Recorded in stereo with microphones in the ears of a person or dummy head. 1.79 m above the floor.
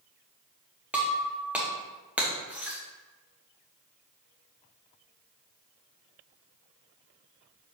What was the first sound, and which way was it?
Breaking glass, 10° right (ahead or behind).